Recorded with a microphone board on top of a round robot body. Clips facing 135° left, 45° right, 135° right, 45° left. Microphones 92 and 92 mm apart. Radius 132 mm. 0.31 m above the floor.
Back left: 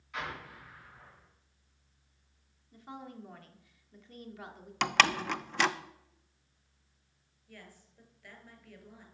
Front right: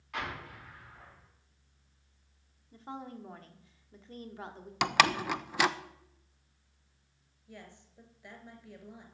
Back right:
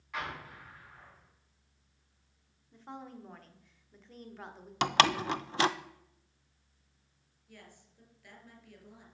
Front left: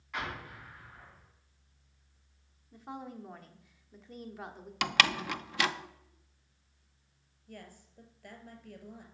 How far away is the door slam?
About 0.6 m.